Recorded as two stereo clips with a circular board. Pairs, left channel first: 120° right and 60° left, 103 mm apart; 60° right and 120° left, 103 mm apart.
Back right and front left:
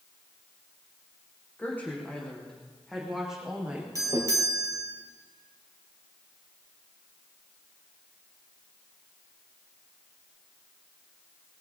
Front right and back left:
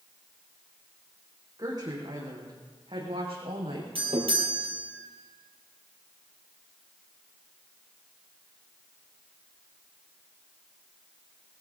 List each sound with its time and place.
1.6 s a woman speaking: 170° left, 5.5 m; by 3.9 s 135° left, 5 m
4.0 s a doorbell: 110° left, 3 m